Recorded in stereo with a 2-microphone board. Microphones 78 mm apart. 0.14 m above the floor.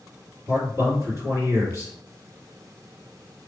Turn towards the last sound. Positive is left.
turn(degrees=-35)  # may be behind; listen again after turning